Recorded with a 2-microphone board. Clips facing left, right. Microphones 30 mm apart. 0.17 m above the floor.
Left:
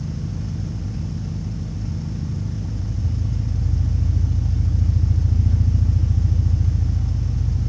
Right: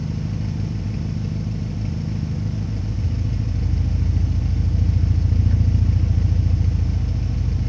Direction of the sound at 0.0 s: 45° right (ahead or behind).